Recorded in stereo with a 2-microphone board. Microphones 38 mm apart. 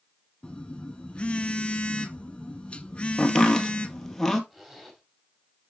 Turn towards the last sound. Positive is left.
turn(degrees=-10)  # may be behind; listen again after turning